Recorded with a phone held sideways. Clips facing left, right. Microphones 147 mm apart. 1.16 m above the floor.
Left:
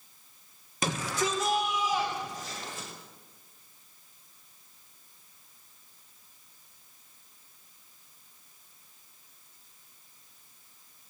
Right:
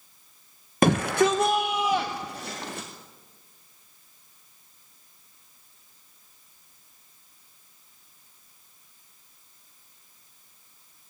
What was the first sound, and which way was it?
A shout, 60° right (ahead or behind).